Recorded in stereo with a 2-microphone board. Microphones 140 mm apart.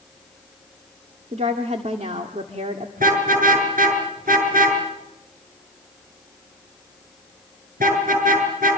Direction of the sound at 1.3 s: 55° right (ahead or behind).